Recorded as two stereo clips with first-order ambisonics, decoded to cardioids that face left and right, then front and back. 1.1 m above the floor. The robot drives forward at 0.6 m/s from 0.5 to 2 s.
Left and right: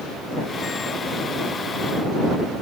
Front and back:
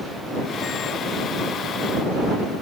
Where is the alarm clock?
No alarm clock in this recording.